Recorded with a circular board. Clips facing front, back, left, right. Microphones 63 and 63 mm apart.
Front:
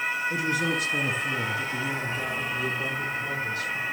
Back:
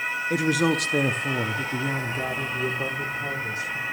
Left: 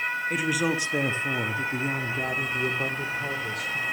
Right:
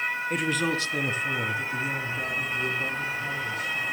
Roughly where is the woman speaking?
Behind.